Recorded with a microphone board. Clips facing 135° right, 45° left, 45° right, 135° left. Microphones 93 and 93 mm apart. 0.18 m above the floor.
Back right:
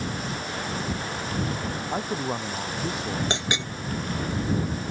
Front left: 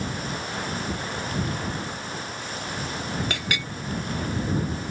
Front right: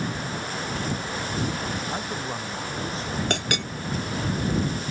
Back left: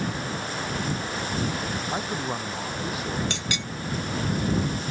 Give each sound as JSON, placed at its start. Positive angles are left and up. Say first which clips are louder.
{"t": 1.9, "sound": "a man speaking", "louder": "back right 6 dB, back left 2 dB", "azimuth_deg": -145}
{"t": 3.3, "sound": "a clink", "louder": "back right 2 dB, front right 5 dB", "azimuth_deg": -70}